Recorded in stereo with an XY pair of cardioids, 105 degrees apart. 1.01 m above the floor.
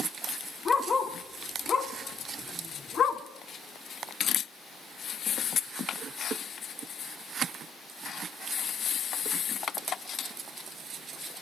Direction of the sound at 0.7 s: 35° left.